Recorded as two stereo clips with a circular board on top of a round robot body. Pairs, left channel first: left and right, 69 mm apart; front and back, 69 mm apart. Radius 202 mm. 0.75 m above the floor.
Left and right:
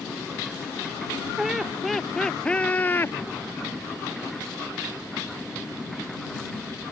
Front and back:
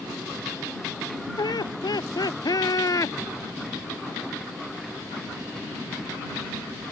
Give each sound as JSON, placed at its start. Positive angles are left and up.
{"t": 1.4, "sound": "laughter", "azimuth_deg": -5}